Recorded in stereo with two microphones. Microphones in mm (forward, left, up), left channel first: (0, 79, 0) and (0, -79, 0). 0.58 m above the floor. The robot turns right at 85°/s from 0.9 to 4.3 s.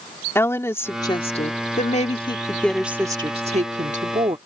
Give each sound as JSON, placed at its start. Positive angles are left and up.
{"t": 0.3, "sound": "a woman speaking", "azimuth_deg": 20}